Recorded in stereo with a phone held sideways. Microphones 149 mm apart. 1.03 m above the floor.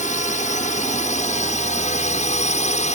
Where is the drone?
55° left (ahead or behind); by 3.0 s 50° left (ahead or behind).